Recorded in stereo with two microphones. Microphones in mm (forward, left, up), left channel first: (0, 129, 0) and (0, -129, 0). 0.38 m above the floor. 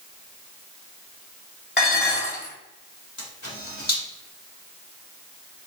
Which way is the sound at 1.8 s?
40° left (ahead or behind).